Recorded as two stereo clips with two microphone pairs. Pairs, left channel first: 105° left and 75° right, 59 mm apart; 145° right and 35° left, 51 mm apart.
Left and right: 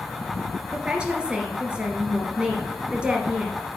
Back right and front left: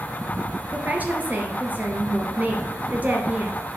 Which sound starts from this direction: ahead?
A woman speaking, at 0.7 s.